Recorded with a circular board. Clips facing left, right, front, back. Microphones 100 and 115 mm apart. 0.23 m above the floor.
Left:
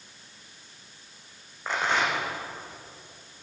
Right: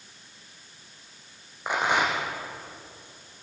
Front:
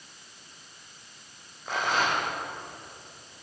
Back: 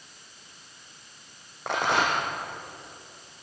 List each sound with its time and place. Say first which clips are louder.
1.7 s a rattle: right 2 dB, back 2 dB; 165° right, 5.5 m